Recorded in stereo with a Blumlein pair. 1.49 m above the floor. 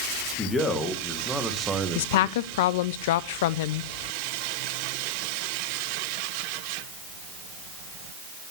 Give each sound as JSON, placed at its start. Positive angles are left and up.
{"t": 0.4, "sound": "a man speaking", "azimuth_deg": 20, "distance_m": 2.0}
{"t": 1.9, "sound": "a woman speaking", "azimuth_deg": 55, "distance_m": 0.5}